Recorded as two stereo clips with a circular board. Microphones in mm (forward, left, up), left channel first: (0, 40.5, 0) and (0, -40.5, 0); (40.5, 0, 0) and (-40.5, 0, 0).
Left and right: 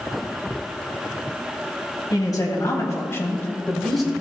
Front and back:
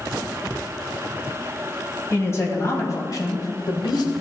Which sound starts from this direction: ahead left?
A man speaking, at 2.1 s.